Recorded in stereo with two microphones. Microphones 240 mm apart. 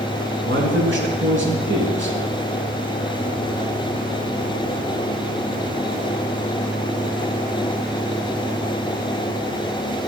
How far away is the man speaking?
About 2.5 m.